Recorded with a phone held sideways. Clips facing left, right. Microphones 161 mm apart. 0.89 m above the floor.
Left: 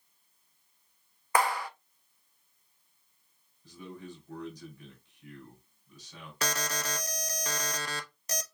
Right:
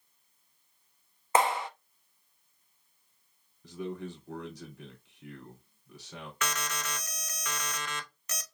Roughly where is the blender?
No blender in this recording.